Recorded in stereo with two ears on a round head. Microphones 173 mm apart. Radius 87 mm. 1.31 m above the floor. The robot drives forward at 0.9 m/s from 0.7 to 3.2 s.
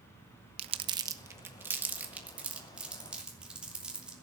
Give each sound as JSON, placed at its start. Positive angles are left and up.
{"t": 0.6, "sound": "crumpling", "side_deg": -30, "distance_m": 0.6}